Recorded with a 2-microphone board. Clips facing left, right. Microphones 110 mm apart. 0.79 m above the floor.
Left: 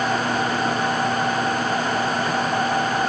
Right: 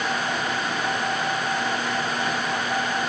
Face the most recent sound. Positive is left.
No sound to turn to.